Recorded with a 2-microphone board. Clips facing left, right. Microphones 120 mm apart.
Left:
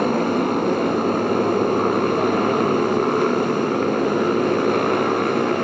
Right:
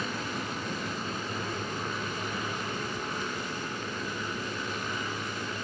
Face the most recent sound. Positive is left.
turn(degrees=80)